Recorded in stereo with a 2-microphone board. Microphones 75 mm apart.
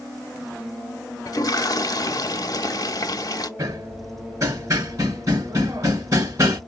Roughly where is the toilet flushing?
Left.